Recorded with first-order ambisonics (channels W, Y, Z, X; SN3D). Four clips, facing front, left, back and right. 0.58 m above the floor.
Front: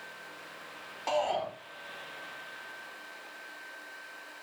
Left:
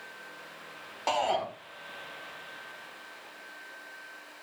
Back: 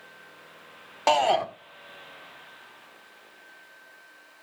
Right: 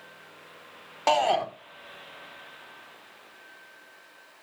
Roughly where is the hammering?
No hammering in this recording.